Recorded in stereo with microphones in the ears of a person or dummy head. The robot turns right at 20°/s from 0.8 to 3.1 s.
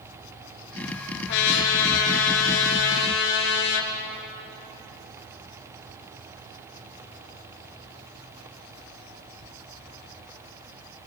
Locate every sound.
1.3 s a trumpet: 60° left, 3 m; by 3.9 s 100° left, 3 m